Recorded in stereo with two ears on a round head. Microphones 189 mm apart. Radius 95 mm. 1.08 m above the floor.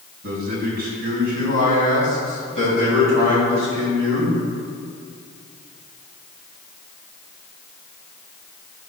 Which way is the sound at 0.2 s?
45° right (ahead or behind).